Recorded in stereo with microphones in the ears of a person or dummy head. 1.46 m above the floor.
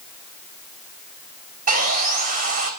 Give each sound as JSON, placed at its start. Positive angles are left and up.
{"t": 1.7, "sound": "sawing", "side_deg": -50, "distance_m": 4.0}